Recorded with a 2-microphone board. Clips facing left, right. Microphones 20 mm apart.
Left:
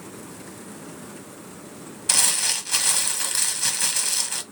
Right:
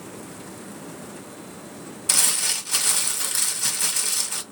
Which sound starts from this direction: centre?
Crumpling, at 2.1 s.